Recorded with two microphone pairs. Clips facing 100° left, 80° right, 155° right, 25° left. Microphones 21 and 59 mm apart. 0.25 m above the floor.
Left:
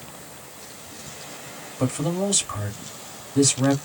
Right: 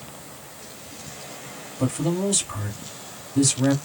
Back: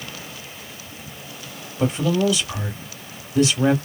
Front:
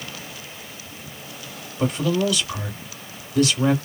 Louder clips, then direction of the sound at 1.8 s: Even, back 1 dB; 155° left.